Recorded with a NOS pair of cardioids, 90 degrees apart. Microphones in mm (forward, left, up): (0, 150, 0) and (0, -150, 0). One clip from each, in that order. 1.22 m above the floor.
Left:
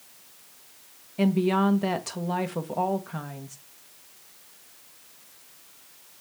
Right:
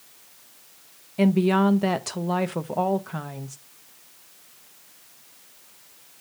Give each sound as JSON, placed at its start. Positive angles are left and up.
{"t": 1.2, "sound": "a woman speaking", "azimuth_deg": -15, "distance_m": 1.0}